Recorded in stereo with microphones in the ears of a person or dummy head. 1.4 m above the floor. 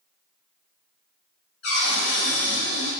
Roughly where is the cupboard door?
Left.